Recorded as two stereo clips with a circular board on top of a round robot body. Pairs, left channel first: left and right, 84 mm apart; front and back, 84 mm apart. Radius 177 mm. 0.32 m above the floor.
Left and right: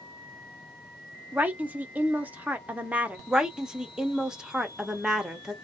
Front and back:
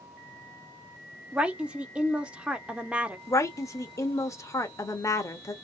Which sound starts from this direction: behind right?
A woman speaking, at 1.3 s.